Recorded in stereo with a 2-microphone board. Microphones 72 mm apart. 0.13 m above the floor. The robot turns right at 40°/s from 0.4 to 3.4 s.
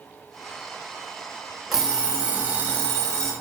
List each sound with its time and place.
1.7 s an alarm clock: 175° right, 0.9 m; by 3.3 s 110° right, 0.9 m